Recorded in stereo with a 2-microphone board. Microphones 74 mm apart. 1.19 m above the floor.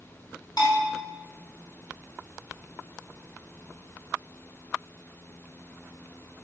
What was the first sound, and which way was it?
A bell, 65° left (ahead or behind).